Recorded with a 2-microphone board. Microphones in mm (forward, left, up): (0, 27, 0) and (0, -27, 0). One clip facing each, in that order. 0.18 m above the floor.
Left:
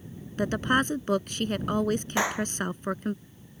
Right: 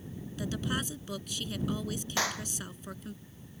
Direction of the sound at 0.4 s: 50° left (ahead or behind).